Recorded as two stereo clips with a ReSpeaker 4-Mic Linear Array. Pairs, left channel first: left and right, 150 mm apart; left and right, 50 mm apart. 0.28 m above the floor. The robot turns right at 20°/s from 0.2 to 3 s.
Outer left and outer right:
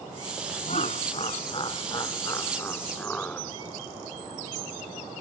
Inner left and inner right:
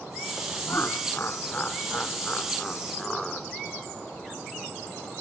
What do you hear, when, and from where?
0.7 s laughter: 120° left; by 3.5 s 170° left